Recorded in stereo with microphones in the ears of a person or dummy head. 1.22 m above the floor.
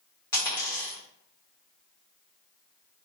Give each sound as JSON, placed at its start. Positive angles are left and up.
{"t": 0.3, "sound": "a dropped coin", "side_deg": 20, "distance_m": 1.3}